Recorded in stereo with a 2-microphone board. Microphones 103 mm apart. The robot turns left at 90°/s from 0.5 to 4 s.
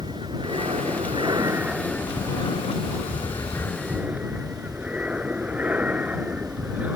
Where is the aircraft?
60° right; by 7.0 s 15° right.